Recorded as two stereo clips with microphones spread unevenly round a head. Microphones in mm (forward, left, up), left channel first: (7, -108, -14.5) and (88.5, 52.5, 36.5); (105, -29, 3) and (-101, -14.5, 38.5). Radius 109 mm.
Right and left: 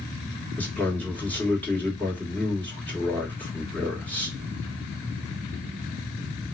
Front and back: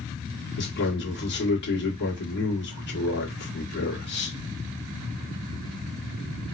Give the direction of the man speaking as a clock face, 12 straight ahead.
1 o'clock.